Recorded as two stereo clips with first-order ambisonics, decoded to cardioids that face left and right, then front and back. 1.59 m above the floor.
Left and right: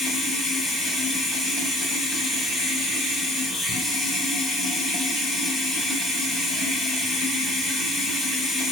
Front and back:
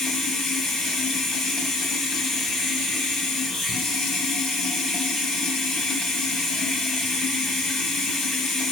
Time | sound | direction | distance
0.0 | running water | 40° left | 1.4 m